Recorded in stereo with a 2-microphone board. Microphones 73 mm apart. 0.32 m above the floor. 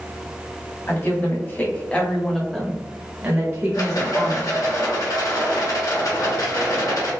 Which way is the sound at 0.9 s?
35° left (ahead or behind).